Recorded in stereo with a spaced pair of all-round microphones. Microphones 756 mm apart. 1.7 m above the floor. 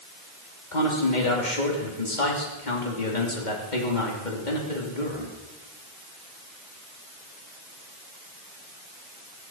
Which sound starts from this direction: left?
A man speaking, at 0.7 s.